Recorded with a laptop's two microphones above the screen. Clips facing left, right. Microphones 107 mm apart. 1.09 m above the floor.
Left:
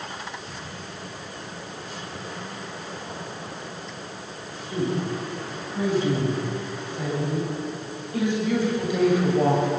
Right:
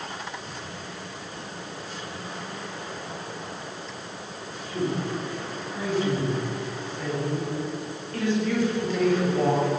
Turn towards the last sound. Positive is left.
turn(degrees=10)  # may be behind; listen again after turning